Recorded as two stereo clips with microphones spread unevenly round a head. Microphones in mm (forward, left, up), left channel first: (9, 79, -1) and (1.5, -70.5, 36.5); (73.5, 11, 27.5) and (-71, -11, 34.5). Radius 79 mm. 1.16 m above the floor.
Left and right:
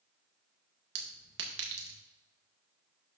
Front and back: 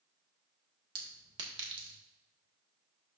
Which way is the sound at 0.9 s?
110° right.